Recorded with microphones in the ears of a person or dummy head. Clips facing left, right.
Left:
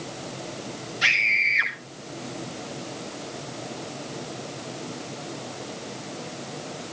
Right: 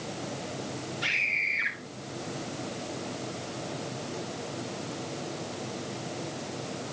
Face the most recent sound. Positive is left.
turn(degrees=80)